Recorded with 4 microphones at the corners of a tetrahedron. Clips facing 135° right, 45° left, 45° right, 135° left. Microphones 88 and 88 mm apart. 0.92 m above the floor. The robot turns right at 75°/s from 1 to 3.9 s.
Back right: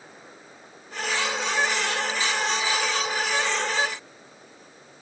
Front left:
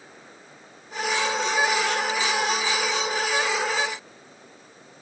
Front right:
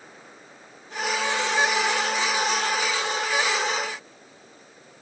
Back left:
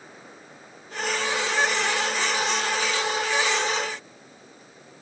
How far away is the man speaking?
I don't hear a man speaking.